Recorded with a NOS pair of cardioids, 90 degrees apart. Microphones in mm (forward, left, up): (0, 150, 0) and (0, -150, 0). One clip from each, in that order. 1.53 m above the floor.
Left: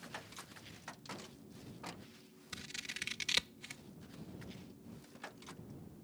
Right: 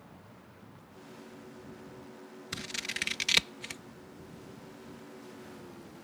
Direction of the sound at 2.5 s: 60° right.